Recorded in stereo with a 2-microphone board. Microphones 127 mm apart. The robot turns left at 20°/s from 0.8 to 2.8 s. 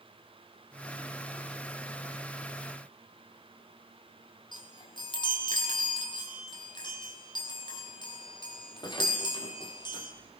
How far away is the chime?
About 3 m.